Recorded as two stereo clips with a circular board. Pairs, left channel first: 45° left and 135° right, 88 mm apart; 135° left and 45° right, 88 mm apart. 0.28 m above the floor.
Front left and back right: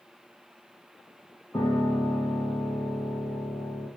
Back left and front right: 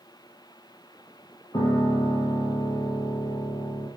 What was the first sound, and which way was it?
A piano, 100° left.